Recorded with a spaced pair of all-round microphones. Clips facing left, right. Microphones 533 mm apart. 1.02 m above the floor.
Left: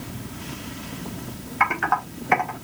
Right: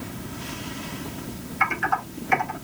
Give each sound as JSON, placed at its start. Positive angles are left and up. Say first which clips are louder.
{"t": 1.6, "sound": "typing on a keyboard", "louder": "left 3 dB", "side_deg": 70, "distance_m": 1.6}